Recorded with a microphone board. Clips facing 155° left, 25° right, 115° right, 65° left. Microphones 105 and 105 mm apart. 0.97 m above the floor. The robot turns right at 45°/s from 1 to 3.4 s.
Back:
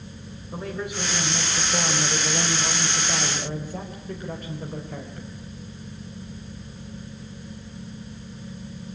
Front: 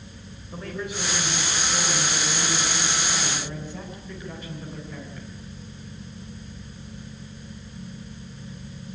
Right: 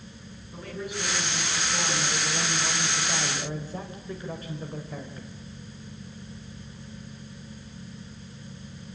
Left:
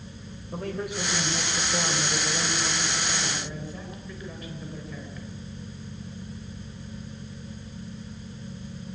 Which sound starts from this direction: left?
A man speaking, at 0.5 s.